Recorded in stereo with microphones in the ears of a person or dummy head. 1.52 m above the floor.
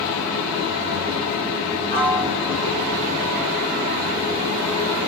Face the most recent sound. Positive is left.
turn(degrees=-40)  # may be behind; listen again after turning